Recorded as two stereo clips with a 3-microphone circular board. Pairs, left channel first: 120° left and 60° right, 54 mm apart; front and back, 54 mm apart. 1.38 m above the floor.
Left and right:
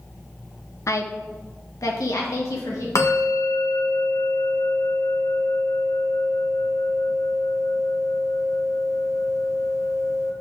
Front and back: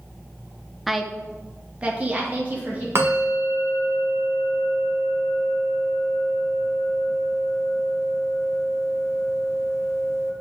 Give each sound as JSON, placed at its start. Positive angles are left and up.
{"t": 0.9, "sound": "a woman speaking", "azimuth_deg": 90, "distance_m": 0.9}
{"t": 3.0, "sound": "a bell", "azimuth_deg": 140, "distance_m": 1.6}